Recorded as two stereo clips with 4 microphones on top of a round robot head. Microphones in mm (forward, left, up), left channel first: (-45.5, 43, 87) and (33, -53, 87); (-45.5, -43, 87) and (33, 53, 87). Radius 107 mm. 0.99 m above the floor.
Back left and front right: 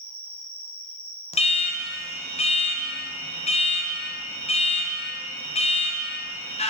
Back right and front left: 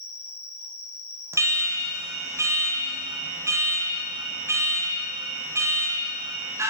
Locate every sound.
0.0 s an insect: 120° right, 1.1 m
1.3 s an alarm: 115° left, 0.7 m